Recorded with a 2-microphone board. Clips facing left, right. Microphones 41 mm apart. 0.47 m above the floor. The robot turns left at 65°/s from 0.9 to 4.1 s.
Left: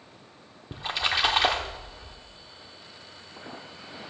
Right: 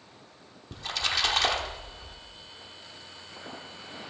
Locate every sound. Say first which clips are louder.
0.7 s a splash: left 3 dB; 25° left (ahead or behind), 1.3 m; by 2.1 s centre (ahead or behind), 1.3 m